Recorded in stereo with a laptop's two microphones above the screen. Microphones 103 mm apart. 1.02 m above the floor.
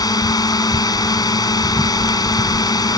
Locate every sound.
0.0 s a drone: 40° left (ahead or behind)